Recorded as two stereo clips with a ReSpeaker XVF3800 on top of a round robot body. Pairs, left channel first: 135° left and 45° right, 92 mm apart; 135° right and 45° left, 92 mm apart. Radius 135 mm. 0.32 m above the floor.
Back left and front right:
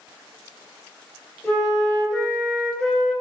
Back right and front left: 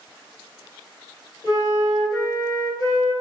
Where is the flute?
145° right, 1.8 m.